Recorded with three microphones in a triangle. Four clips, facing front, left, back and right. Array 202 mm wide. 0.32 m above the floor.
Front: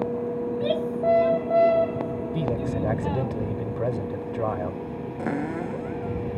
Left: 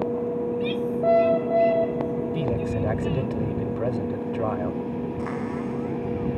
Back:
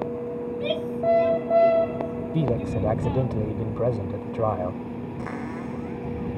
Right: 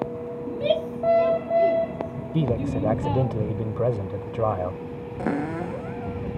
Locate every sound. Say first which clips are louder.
0.5 s a shout: right 1 dB, front 2 dB; 85° right
2.3 s a man speaking: right 1 dB, back 3 dB; 125° right
5.2 s a cupboard door: right 2 dB, front 7 dB; 60° right